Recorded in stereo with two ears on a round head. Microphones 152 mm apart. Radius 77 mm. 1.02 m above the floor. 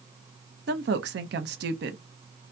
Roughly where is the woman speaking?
Right.